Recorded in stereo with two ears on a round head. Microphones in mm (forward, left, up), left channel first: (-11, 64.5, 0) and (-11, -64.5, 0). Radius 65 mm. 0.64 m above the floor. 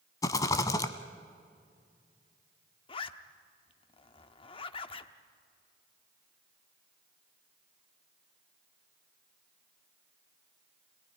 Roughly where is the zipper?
Left.